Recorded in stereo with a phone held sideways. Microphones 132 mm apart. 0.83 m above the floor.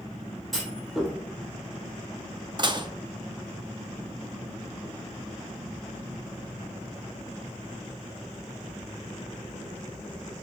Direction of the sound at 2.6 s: 35° right (ahead or behind).